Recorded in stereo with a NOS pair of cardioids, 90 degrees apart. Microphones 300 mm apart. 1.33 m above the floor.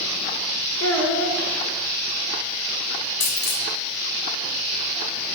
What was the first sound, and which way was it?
A child speaking, 50° left.